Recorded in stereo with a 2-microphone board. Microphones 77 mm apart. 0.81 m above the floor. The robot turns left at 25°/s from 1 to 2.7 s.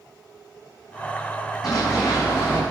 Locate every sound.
1.6 s running footsteps: 50° left (ahead or behind), 3.5 m; by 2.6 s 25° left (ahead or behind), 3.5 m